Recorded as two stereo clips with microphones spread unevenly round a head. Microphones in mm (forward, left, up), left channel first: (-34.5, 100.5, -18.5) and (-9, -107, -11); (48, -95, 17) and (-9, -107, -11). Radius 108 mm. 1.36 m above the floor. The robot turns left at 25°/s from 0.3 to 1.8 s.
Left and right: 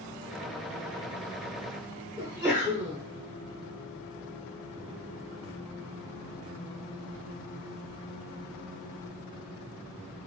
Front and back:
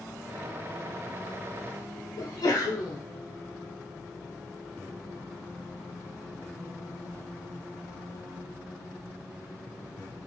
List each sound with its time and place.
2.2 s a sneeze: straight ahead, 0.6 m